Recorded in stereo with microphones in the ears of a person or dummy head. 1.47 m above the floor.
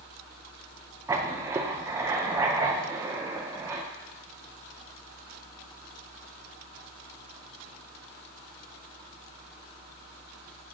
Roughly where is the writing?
Centre.